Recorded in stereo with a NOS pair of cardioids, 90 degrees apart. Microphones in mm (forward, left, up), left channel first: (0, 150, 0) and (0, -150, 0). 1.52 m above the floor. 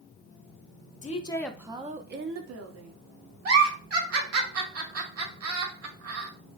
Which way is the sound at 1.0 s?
25° left.